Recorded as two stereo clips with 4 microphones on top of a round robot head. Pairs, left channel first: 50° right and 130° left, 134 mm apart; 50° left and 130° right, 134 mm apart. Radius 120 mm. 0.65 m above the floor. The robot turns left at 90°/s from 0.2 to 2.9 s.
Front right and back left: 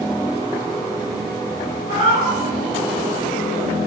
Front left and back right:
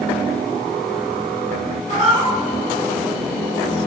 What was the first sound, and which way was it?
A cat meowing, 160° right.